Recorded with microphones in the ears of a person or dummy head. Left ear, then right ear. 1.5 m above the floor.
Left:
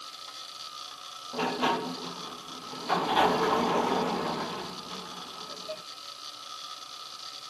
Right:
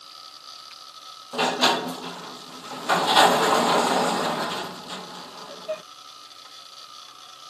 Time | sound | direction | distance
1.3 | a sliding door | 50° right (ahead or behind) | ?